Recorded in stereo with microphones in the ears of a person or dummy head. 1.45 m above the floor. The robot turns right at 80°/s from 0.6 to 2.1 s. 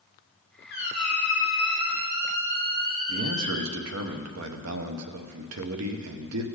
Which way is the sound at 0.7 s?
115° left.